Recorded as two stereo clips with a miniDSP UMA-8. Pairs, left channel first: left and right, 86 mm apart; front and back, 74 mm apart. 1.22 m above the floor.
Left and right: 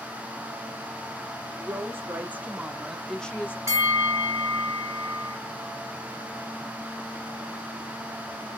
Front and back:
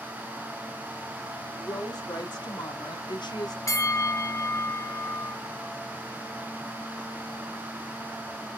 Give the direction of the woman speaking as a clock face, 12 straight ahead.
1 o'clock.